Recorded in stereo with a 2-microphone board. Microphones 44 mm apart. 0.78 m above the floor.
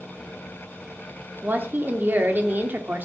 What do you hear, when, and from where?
1.4 s a woman speaking: 45° right (ahead or behind), 2.5 m